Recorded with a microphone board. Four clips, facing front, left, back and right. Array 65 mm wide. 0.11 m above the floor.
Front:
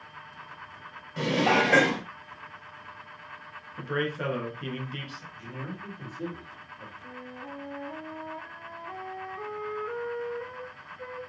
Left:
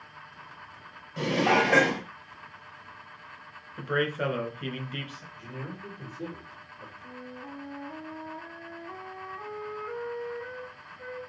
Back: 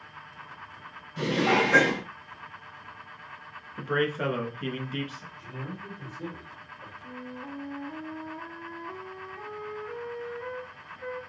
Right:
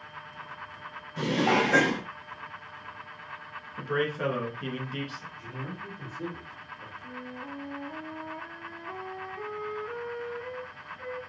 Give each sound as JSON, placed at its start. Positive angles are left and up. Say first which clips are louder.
{"t": 1.2, "sound": "dishes clattering", "louder": "left 1 dB, even", "azimuth_deg": 25, "distance_m": 1.5}
{"t": 3.8, "sound": "a man speaking", "louder": "left 1 dB, back 3 dB", "azimuth_deg": 130, "distance_m": 1.1}
{"t": 5.3, "sound": "a man speaking", "louder": "right 1 dB, front 3 dB", "azimuth_deg": -20, "distance_m": 3.0}
{"t": 7.0, "sound": "a flute", "louder": "right 3 dB, back 2 dB", "azimuth_deg": -50, "distance_m": 1.7}